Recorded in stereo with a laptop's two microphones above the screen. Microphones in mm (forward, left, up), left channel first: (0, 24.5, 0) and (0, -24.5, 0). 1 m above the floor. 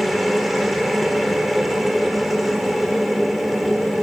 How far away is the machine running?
About 3.5 m.